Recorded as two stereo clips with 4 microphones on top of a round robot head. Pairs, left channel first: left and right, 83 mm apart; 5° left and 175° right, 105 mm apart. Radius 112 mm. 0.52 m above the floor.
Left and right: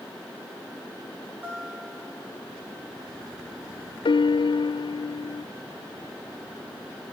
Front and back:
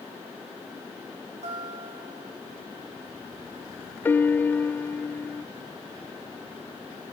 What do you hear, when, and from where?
1.4 s a guitar: 165° right, 3.5 m
4.0 s a piano: 75° left, 0.5 m